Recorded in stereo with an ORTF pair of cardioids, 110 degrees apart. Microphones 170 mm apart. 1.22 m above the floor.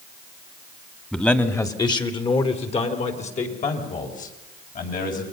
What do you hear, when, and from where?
1.1 s a man speaking: 5° left, 2.5 m; by 5.2 s 55° left, 7.5 m